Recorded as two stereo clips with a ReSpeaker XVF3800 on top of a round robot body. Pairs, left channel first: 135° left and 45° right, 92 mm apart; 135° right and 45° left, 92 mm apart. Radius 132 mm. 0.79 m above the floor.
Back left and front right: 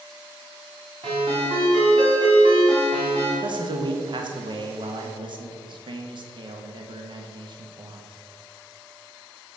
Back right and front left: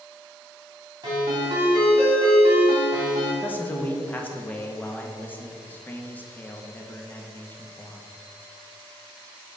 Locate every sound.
1.0 s a ringtone: 5° right, 3 m
3.4 s a man speaking: 65° right, 1.0 m